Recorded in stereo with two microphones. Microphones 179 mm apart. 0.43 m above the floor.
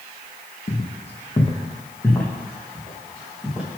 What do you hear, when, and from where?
0.7 s footsteps: 55° left (ahead or behind), 1.2 m; by 3.7 s 5° right (ahead or behind), 3.5 m